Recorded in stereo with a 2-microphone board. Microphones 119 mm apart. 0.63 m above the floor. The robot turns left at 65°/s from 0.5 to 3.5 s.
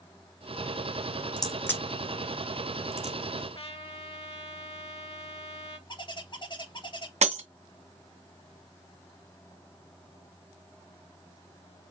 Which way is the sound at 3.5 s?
50° left (ahead or behind).